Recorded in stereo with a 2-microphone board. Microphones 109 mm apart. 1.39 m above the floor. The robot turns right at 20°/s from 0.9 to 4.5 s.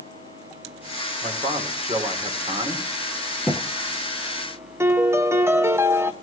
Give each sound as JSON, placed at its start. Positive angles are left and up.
{"t": 1.2, "sound": "a man speaking", "azimuth_deg": -80, "distance_m": 4.0}
{"t": 3.5, "sound": "a thud", "side_deg": -10, "distance_m": 2.5}
{"t": 4.8, "sound": "a piano", "side_deg": -20, "distance_m": 1.2}